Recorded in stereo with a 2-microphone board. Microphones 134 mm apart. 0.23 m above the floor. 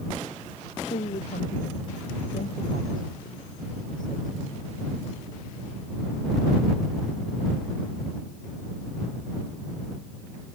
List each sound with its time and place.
0.9 s a woman speaking: 80° left